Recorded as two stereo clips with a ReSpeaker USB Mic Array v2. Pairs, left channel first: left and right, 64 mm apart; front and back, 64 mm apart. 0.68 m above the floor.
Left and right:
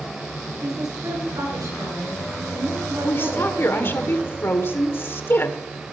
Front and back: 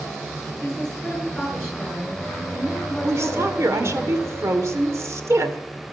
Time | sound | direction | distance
0.6 | a woman speaking | 85° right | 7.5 m
3.0 | a woman speaking | 140° left | 1.8 m